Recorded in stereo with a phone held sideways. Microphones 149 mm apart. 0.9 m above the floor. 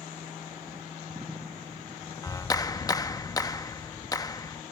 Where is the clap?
25° left (ahead or behind).